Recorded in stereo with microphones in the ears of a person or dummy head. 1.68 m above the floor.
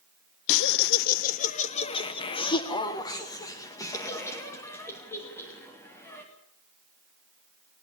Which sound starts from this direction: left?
Laughter, at 0.5 s.